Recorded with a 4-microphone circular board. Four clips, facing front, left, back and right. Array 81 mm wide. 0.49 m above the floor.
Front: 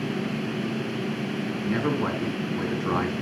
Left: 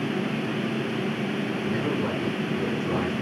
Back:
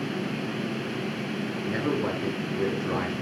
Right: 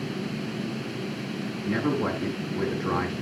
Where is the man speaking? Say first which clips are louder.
Right 4 dB, front 2 dB; 30° right, 4 m.